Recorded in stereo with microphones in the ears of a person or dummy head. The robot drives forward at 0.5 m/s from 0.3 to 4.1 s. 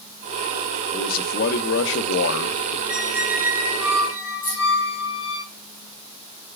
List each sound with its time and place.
0.9 s a man speaking: 50° left (ahead or behind), 1.3 m; by 2.8 s 80° left, 1.0 m
2.9 s a squeak: 10° right (ahead or behind), 1.3 m; by 5.4 s 5° right (ahead or behind), 1.8 m
4.4 s keys jangling: 10° left (ahead or behind), 5 m